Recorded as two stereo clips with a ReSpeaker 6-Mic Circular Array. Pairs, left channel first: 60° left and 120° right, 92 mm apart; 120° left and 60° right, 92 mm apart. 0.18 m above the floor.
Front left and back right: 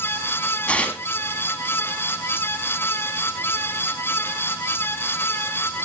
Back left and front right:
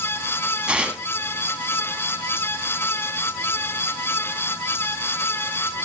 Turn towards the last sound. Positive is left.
turn(degrees=0)